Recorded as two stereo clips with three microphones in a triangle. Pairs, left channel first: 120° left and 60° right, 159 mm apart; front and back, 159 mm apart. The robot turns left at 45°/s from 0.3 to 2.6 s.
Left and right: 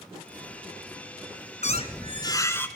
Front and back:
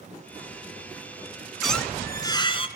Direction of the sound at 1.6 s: 90° left.